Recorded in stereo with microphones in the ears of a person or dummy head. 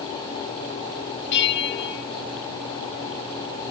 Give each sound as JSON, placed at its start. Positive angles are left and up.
{"t": 1.3, "sound": "a bell", "side_deg": 60, "distance_m": 1.1}